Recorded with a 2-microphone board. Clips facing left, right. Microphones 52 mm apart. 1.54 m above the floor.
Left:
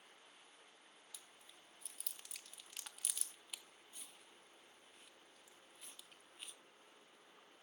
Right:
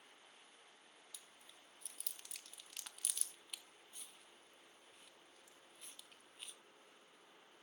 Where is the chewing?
5° left (ahead or behind), 1.0 m.